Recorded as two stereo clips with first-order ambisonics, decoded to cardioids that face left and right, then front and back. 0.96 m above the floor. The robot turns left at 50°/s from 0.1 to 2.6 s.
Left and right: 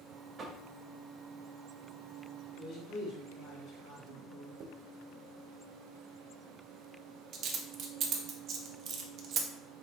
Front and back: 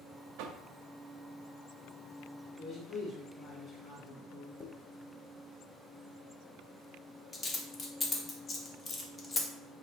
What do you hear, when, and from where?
0.4 s knocking: 160° right, 0.5 m; by 0.7 s 175° right, 0.5 m
2.6 s a man speaking: 50° left, 2.5 m
4.6 s a dropped coin: 65° right, 0.6 m